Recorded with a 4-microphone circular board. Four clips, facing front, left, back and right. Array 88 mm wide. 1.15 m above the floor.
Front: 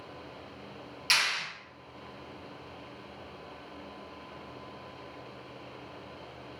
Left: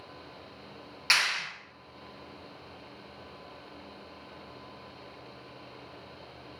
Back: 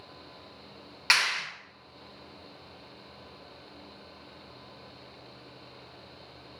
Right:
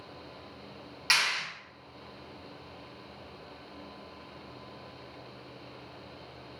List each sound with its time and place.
1.1 s a clap: straight behind, 1.4 m